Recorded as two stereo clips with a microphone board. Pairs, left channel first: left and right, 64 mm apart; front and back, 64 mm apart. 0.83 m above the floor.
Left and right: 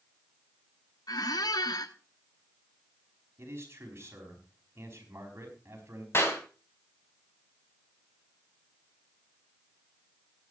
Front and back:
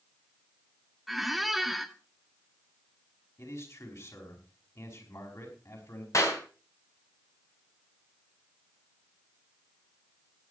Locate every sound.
1.1 s a squeak: 95° left, 1.0 m
3.4 s a man speaking: 40° right, 5 m
6.1 s a clap: 40° left, 4 m